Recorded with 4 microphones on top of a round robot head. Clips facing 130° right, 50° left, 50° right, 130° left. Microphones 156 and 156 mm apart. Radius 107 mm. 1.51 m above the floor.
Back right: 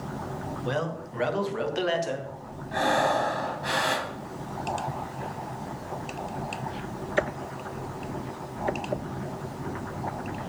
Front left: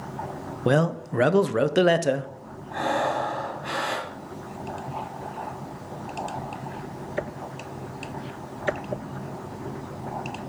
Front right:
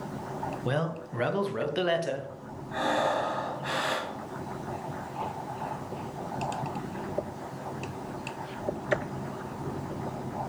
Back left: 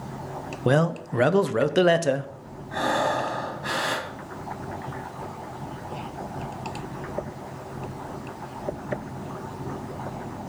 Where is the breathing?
Straight behind, 1.7 m.